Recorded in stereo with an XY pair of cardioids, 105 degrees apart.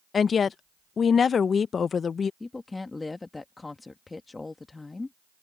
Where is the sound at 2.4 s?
20° left.